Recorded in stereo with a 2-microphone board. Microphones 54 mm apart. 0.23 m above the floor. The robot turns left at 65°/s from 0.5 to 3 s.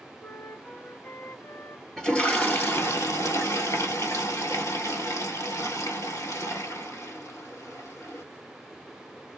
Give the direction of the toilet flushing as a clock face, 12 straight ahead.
6 o'clock.